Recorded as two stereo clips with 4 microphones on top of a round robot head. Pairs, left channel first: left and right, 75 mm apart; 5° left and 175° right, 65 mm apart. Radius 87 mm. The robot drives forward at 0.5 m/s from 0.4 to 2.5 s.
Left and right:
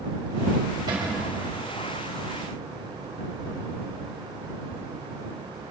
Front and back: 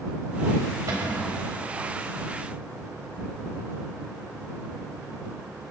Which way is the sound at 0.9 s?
125° right.